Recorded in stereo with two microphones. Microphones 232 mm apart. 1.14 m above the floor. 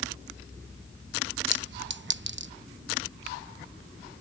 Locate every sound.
1.5 s a clink: 50° right (ahead or behind)